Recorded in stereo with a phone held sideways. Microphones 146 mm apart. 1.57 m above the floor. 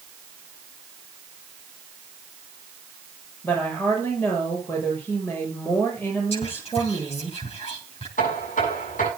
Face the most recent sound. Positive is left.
turn(degrees=65)  # may be behind; listen again after turning